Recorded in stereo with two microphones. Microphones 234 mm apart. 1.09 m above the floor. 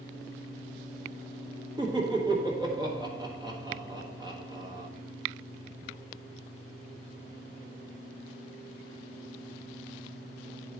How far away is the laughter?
About 1.3 m.